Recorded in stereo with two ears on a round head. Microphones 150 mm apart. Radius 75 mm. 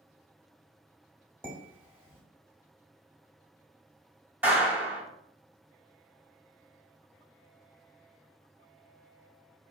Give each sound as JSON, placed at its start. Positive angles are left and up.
{"t": 1.4, "sound": "dishes clattering", "side_deg": -15, "distance_m": 1.6}
{"t": 4.4, "sound": "a clap", "side_deg": -10, "distance_m": 1.6}